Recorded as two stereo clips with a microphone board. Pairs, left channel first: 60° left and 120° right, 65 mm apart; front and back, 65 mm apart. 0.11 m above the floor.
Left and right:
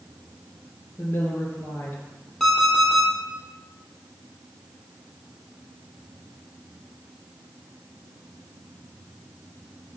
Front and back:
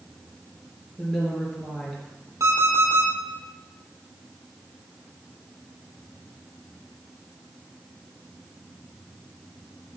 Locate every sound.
1.0 s a woman speaking: 80° left, 1.8 m
2.4 s an alarm clock: 145° left, 2 m